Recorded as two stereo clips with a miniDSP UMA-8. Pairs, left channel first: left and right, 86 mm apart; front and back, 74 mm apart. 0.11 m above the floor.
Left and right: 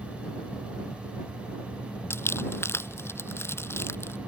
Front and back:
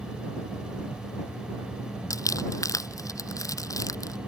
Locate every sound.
2.1 s crumpling: 30° left